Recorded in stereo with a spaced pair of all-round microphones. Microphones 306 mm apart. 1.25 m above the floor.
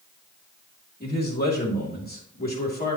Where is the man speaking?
30° left (ahead or behind), 3 m.